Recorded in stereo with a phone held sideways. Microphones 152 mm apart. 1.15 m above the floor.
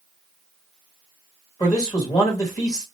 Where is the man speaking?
25° left (ahead or behind), 1.5 m.